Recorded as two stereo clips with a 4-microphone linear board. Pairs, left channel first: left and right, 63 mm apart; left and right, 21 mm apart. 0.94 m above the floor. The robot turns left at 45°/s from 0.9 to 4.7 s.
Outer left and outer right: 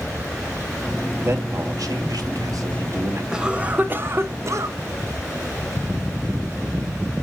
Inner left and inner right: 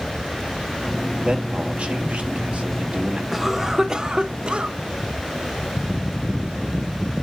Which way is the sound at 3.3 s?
10° right.